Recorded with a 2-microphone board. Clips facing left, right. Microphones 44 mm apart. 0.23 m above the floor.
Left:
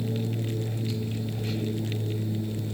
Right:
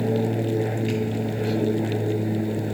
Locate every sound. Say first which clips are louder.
0.0 s an aircraft: right 8 dB; 65° right (ahead or behind); by 2.8 s 60° right (ahead or behind)